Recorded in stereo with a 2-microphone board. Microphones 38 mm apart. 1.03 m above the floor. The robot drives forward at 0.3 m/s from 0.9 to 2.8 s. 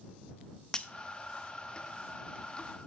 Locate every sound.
0.7 s breaking glass: 20° left (ahead or behind), 0.7 m